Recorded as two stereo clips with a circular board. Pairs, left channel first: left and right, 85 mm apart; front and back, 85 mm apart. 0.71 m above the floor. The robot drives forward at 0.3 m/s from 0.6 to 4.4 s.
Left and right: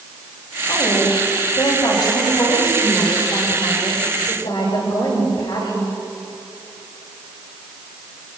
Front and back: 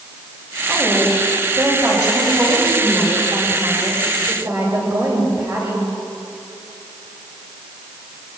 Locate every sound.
0.7 s a woman speaking: 130° left, 10 m; by 5.9 s 135° left, 10.5 m